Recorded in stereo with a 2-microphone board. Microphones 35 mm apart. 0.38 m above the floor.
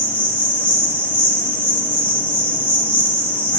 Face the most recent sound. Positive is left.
turn(degrees=65)  # may be behind; listen again after turning